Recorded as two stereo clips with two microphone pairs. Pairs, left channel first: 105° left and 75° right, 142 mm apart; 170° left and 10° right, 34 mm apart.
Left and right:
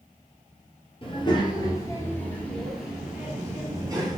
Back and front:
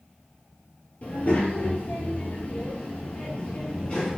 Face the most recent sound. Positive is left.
turn(degrees=-130)